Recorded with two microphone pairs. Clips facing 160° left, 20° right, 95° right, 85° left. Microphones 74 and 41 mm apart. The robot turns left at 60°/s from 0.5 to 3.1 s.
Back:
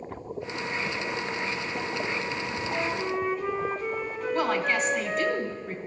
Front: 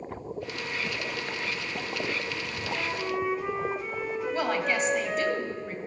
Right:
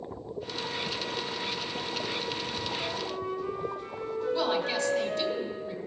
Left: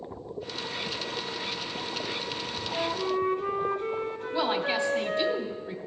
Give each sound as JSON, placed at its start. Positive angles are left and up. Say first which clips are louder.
{"t": 2.7, "sound": "a flute", "louder": "back 1 dB, left 5 dB", "azimuth_deg": 80, "distance_m": 1.2}
{"t": 4.3, "sound": "a woman speaking", "louder": "back 3 dB, left 3 dB", "azimuth_deg": 65, "distance_m": 1.1}